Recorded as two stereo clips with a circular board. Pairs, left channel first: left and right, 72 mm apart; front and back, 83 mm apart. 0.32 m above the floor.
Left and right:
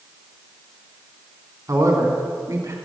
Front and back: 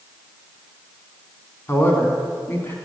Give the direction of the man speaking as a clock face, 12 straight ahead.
2 o'clock.